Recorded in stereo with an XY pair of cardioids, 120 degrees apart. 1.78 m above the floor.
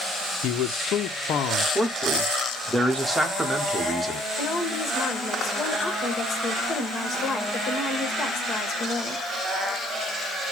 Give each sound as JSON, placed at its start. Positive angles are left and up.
{"t": 0.4, "sound": "a man speaking", "azimuth_deg": 70, "distance_m": 0.6}
{"t": 1.8, "sound": "a man speaking", "azimuth_deg": -10, "distance_m": 1.1}
{"t": 4.4, "sound": "a woman speaking", "azimuth_deg": 35, "distance_m": 1.5}